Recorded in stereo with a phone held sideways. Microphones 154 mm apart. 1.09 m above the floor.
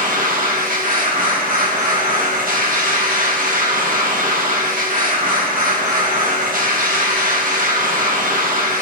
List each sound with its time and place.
0.0 s a machine running: 65° right (ahead or behind), 4 m